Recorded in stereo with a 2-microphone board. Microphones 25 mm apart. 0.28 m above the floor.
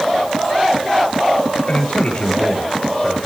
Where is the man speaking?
55° left (ahead or behind), 6.5 m.